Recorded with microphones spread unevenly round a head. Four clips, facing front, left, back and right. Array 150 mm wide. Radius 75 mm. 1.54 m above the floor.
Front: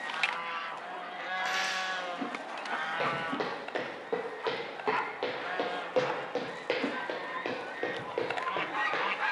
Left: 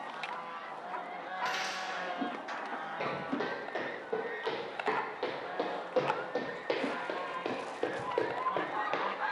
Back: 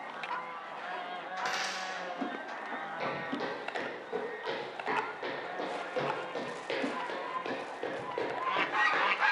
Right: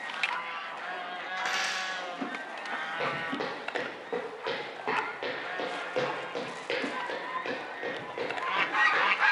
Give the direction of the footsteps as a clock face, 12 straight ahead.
1 o'clock.